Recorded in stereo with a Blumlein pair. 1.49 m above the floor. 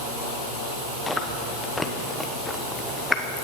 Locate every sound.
1.1 s chewing: 5° left, 1.1 m